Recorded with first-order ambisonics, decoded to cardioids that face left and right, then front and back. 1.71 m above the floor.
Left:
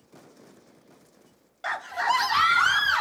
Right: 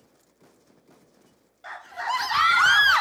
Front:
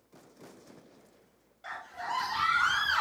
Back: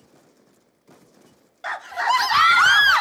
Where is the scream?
140° left, 0.7 m; by 3.0 s 150° right, 0.9 m.